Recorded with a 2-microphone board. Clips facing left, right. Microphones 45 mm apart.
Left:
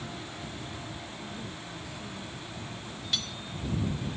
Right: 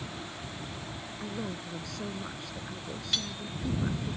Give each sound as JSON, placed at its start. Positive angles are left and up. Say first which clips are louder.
{"t": 1.2, "sound": "a man speaking", "louder": "right 3 dB", "side_deg": -75}
{"t": 3.1, "sound": "cutlery clinking", "louder": "even", "side_deg": 0}